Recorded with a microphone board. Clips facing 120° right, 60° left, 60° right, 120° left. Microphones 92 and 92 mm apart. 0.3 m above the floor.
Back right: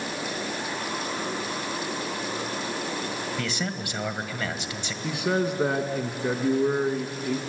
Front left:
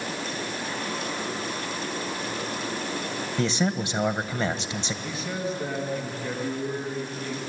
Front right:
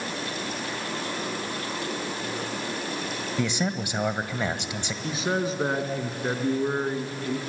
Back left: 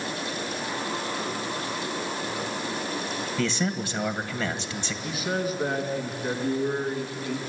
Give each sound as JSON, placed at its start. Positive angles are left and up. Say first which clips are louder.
{"t": 3.4, "sound": "a man speaking", "louder": "front left 5 dB, even", "azimuth_deg": 5, "distance_m": 1.5}
{"t": 5.0, "sound": "a man speaking", "louder": "back right 9 dB, front right 2 dB", "azimuth_deg": -120, "distance_m": 3.0}